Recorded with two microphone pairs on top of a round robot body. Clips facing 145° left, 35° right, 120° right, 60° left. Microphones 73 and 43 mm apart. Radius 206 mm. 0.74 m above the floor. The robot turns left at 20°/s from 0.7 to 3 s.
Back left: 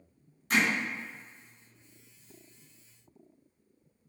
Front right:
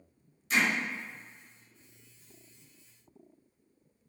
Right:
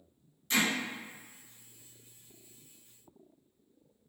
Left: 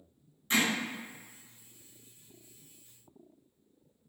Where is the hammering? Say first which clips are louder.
Back left 1 dB, left 1 dB; 115° left, 1.6 m.